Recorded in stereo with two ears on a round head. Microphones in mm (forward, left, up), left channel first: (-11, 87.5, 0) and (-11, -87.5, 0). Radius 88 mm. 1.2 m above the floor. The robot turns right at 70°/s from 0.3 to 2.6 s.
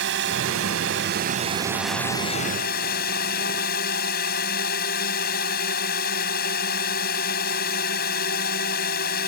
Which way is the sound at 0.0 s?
110° right.